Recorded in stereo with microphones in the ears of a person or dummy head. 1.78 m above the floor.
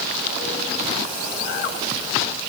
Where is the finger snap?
No finger snap in this recording.